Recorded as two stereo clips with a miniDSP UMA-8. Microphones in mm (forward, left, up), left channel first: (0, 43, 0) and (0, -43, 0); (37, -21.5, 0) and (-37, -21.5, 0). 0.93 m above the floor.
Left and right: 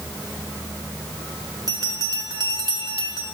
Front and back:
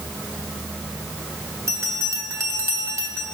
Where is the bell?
130° right, 1.6 m.